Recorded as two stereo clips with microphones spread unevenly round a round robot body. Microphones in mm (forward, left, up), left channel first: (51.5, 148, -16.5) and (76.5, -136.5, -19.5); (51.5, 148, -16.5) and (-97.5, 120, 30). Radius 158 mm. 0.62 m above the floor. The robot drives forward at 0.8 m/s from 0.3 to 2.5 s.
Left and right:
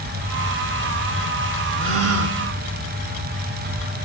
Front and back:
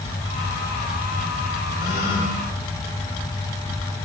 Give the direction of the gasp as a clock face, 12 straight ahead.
1 o'clock.